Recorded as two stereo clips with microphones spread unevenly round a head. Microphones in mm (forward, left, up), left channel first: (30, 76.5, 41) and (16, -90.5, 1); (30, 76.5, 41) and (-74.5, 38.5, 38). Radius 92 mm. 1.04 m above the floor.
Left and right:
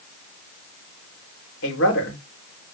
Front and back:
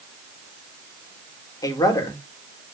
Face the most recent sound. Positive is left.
turn(degrees=75)